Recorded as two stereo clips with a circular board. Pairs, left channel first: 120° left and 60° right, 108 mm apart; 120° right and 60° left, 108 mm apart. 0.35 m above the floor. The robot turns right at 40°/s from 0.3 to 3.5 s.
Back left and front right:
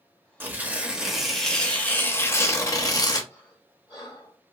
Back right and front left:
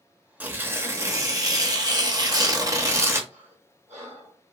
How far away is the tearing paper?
About 0.6 m.